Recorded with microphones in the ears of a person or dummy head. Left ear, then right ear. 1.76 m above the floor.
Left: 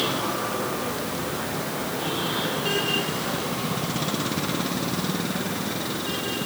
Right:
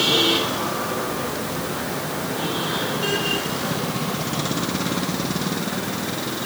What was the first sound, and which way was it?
Only background noise.